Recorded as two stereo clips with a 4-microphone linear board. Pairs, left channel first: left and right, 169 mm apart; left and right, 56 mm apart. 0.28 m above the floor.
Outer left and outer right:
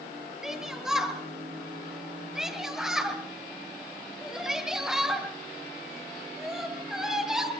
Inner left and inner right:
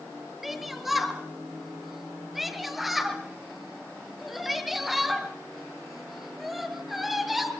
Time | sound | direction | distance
0.4 | a shout | 5° right (ahead or behind) | 7 m